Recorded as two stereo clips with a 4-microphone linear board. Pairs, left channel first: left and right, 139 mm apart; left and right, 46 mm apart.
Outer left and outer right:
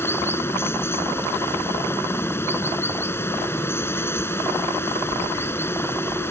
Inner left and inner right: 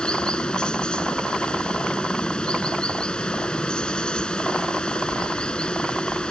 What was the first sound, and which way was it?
Running water, 15° left (ahead or behind).